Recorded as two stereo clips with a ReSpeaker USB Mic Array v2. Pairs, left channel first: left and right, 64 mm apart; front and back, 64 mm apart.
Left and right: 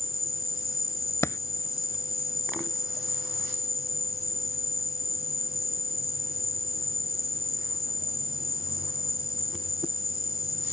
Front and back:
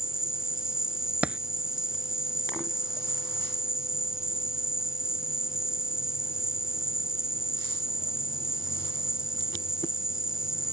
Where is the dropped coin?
115° left.